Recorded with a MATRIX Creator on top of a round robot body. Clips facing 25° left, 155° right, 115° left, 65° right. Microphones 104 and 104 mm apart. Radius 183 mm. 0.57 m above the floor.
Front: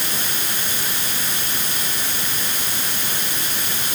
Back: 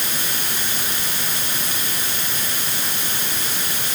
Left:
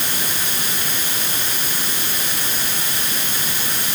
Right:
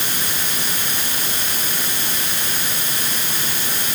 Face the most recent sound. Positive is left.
No sound to turn to.